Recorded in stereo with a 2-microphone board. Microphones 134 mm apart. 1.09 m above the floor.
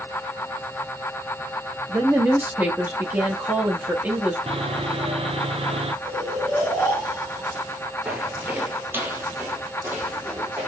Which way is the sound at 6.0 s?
15° right (ahead or behind).